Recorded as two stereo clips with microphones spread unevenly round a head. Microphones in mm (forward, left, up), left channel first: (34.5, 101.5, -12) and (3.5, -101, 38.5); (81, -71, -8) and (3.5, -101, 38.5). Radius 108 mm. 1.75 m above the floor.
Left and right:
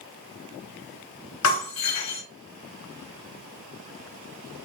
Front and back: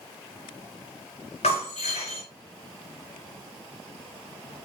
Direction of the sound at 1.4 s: 90° left.